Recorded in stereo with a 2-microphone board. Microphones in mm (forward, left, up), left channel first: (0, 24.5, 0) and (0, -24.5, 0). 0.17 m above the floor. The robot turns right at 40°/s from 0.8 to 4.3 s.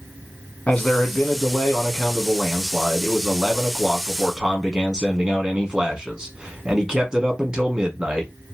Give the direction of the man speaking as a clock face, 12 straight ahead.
10 o'clock.